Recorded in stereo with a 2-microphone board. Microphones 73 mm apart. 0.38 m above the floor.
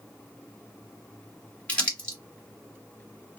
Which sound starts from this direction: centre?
Crumpling, at 1.7 s.